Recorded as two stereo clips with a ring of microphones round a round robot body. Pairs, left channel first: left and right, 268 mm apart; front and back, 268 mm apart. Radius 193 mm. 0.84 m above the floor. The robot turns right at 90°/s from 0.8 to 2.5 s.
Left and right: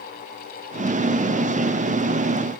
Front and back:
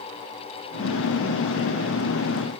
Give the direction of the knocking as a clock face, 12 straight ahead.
No knocking in this recording.